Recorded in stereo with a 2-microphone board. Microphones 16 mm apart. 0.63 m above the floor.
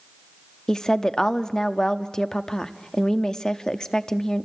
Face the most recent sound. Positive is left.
turn(degrees=40)  # may be behind; listen again after turning